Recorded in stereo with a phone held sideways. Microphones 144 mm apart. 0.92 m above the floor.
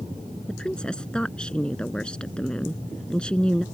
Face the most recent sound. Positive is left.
turn(degrees=5)  # may be behind; listen again after turning